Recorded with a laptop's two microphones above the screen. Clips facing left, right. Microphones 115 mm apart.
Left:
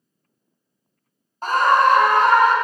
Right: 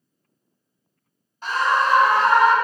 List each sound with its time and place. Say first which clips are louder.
1.4 s a scream: left 5 dB; 45° left (ahead or behind), 0.6 m; by 2.5 s 50° left (ahead or behind), 0.9 m